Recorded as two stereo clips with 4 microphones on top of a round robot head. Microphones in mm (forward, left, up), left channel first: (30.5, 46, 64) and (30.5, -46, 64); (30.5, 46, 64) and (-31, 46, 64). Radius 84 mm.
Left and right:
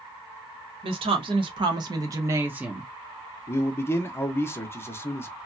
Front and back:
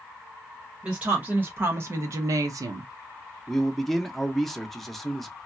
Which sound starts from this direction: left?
A man speaking, at 3.5 s.